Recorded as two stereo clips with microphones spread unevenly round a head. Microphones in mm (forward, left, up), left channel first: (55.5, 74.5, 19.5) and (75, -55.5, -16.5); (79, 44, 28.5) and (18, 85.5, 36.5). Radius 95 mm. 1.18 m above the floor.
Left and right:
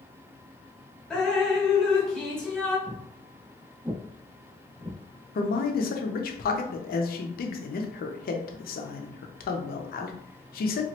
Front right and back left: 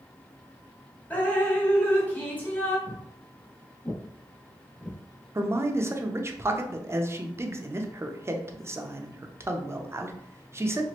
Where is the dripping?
35° left, 1.1 m.